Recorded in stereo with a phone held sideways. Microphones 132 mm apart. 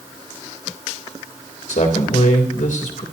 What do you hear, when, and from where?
1.7 s a man speaking: 85° left, 3.5 m